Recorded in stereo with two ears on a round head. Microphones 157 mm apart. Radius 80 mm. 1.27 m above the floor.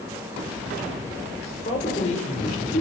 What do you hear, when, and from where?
1.6 s a man speaking: 35° left (ahead or behind), 6 m; by 2.8 s 45° left (ahead or behind), 6.5 m